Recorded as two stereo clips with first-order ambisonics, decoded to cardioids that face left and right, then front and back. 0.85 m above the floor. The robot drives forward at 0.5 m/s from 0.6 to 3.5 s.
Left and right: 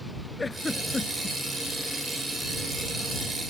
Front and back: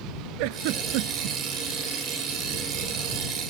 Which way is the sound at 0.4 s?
170° left.